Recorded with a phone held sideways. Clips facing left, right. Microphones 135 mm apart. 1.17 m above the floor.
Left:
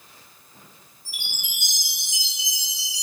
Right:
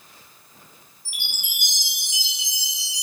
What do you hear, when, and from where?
1.1 s a chime: 75° right (ahead or behind), 1.2 m